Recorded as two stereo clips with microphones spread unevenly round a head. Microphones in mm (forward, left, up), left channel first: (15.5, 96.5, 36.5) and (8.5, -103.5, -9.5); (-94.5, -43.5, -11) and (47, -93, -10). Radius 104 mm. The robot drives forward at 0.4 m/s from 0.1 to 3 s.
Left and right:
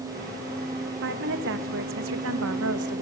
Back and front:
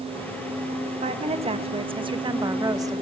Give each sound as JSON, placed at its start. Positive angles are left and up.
{"t": 1.0, "sound": "a woman speaking", "azimuth_deg": -60, "distance_m": 1.8}